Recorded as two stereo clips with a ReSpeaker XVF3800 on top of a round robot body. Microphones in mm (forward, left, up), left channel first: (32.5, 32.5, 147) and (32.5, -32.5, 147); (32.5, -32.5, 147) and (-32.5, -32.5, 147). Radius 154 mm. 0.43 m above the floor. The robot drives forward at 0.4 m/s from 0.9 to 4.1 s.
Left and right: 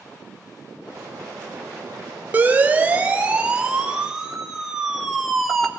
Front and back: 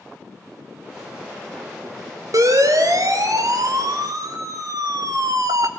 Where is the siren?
155° right, 3 m; by 5.7 s straight behind, 2 m.